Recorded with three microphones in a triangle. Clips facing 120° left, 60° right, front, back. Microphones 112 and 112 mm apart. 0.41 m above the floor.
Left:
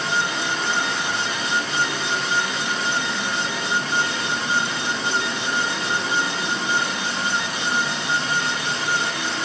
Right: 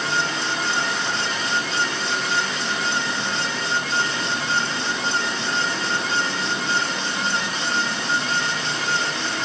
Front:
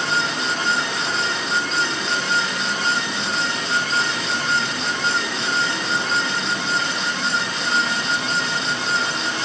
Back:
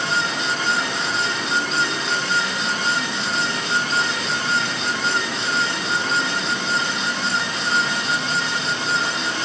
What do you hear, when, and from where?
Only background noise.